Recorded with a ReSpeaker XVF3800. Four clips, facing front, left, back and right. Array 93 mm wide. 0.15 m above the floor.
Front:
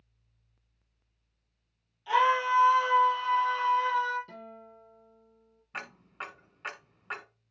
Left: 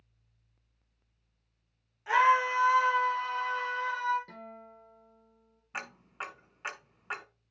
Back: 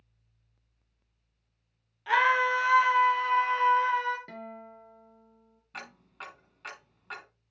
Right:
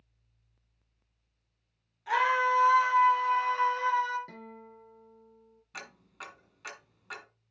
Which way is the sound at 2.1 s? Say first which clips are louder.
Left 2 dB, back 1 dB; 160° left.